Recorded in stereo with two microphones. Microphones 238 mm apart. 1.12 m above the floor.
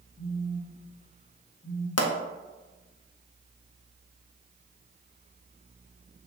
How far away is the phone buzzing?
About 1.1 m.